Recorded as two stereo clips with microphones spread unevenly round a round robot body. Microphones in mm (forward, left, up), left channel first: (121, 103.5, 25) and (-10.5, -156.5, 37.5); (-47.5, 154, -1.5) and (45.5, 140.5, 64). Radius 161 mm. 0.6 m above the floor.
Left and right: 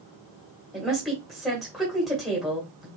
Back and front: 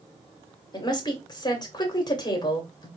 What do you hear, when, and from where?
0.7 s a woman speaking: 155° left, 1.9 m